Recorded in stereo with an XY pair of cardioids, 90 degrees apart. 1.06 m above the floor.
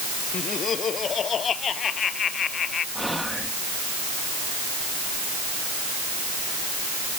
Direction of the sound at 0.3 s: 55° left.